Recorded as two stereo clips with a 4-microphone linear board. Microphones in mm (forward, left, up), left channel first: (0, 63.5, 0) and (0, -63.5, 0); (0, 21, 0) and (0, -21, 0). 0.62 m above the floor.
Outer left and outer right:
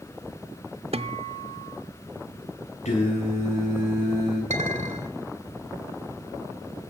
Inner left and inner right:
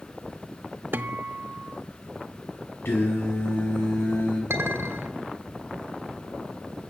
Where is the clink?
70° right (ahead or behind), 2.0 m.